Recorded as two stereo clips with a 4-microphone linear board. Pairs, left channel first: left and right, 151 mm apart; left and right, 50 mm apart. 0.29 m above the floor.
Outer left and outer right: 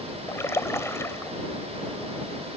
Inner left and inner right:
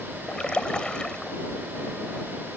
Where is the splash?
20° left (ahead or behind).